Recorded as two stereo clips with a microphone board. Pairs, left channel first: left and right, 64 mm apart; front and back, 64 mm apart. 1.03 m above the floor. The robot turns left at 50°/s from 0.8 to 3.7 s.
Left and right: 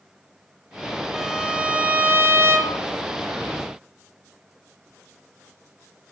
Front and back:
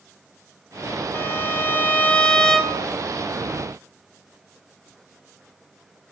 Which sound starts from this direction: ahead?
A violin, at 1.1 s.